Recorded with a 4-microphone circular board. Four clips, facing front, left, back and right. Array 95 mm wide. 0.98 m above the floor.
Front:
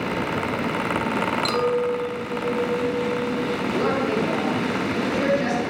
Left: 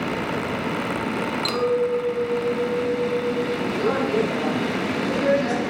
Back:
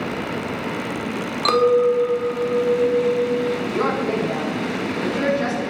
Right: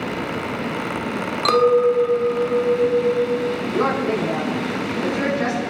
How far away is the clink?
About 1.6 m.